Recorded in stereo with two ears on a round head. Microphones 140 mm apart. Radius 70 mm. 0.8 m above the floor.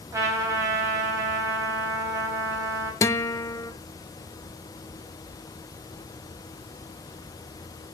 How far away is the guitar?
About 0.7 m.